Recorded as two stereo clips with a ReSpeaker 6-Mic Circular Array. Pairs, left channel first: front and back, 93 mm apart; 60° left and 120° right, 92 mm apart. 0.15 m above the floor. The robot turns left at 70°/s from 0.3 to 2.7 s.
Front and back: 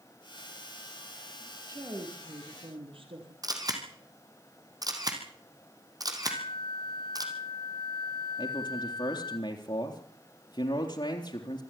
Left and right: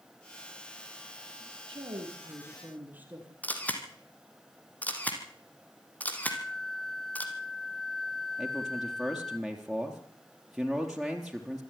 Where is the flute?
25° right, 0.8 m.